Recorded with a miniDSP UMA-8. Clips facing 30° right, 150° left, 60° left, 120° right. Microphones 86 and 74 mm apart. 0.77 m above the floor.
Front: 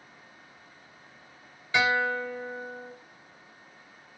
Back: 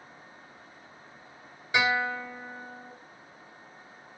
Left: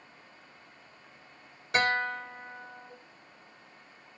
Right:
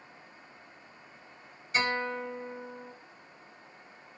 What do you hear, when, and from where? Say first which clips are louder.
1.7 s a guitar: front 2 dB, left 2 dB; 75° left, 1.1 m